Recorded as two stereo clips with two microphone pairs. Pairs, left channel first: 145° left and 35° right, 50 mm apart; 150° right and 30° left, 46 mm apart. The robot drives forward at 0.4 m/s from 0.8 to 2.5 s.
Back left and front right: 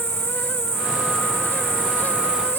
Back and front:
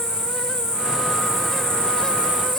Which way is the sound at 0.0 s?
45° right.